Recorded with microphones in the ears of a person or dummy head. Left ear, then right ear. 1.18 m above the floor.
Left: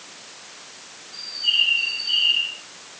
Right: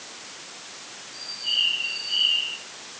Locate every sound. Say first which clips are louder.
1.1 s a bird: left 5 dB; 55° left (ahead or behind), 10 m